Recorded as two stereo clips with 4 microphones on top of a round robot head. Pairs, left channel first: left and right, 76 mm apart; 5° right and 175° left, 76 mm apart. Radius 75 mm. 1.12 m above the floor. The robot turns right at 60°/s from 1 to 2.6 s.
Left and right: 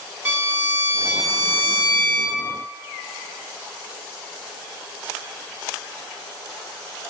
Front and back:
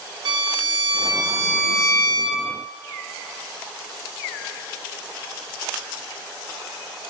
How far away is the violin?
About 1.9 m.